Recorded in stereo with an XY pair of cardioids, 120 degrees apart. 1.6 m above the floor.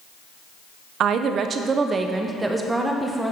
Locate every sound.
1.0 s a woman speaking: 60° right, 0.8 m; by 3.3 s straight ahead, 1.4 m